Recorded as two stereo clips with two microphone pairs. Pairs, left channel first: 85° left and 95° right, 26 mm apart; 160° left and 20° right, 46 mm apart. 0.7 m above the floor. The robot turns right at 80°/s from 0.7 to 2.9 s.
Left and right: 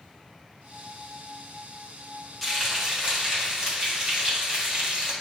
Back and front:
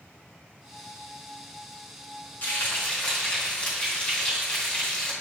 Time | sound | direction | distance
2.4 | frying | 170° left | 1.4 m